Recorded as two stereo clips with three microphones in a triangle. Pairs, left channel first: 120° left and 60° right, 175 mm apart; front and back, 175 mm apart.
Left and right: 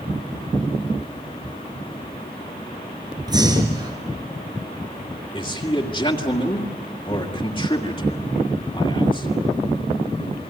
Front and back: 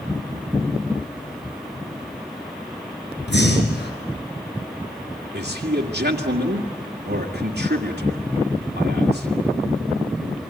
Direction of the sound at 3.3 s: 5° left.